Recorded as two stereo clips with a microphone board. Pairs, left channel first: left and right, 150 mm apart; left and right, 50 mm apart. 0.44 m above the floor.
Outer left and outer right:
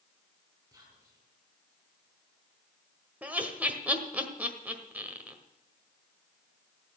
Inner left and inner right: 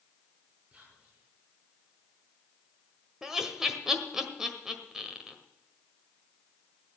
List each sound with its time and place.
0.7 s whispering: 25° right (ahead or behind), 4.5 m
3.2 s laughter: 10° right (ahead or behind), 1.5 m